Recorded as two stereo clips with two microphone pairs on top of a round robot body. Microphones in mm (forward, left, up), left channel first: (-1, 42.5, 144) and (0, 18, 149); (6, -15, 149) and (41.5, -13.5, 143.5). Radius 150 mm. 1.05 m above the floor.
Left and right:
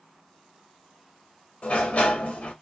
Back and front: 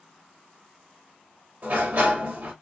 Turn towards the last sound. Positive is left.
turn(degrees=50)